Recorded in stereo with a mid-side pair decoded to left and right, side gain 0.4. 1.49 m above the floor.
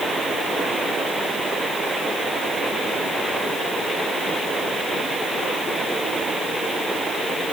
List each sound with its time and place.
Only background noise.